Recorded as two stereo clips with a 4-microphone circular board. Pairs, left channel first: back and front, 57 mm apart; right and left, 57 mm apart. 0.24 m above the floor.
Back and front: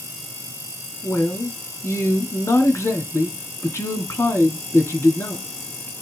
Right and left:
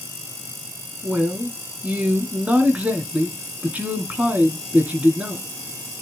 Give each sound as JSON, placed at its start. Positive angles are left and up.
{"t": 1.0, "sound": "a man speaking", "azimuth_deg": 155, "distance_m": 2.5}